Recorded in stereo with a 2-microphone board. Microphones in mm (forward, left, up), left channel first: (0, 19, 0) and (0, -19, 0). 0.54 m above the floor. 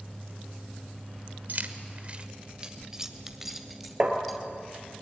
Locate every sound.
1.5 s keys jangling: 55° right (ahead or behind), 1.3 m; by 4.4 s 5° left (ahead or behind), 2.5 m
4.0 s tapping: 30° right (ahead or behind), 3 m